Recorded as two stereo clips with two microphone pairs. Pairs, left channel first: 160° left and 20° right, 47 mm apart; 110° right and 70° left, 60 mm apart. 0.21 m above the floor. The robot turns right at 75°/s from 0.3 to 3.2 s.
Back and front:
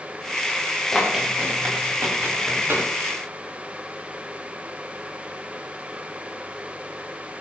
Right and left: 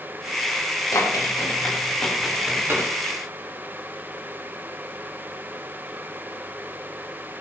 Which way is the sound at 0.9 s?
120° right.